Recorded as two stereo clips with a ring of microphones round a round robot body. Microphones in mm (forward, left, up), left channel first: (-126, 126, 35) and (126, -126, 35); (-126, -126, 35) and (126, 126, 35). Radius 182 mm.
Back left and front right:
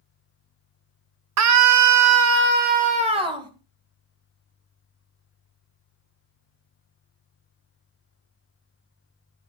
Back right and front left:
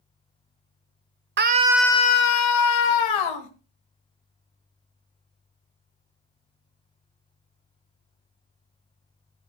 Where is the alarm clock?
I don't hear an alarm clock.